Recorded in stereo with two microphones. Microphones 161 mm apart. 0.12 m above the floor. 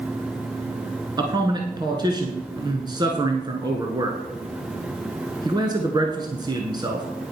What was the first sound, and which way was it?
A man speaking, 25° right (ahead or behind).